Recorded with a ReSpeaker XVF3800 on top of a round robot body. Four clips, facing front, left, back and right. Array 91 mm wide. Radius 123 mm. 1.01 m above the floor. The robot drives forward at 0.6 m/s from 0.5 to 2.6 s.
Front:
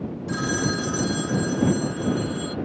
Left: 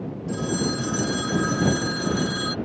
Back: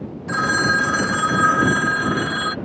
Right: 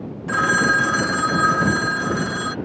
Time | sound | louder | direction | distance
0.3 | a phone ringing | right 10 dB, back 8 dB | 125° right | ?